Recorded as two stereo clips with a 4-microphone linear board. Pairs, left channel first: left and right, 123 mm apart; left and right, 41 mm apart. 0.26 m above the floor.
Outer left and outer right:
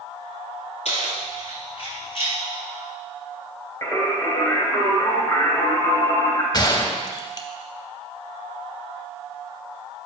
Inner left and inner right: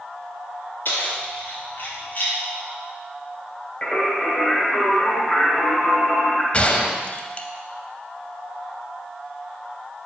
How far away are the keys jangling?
About 2.5 m.